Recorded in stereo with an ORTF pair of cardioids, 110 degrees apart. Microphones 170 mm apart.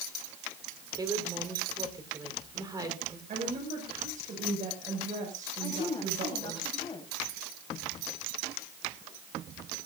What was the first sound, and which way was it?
A woman speaking, 20° right.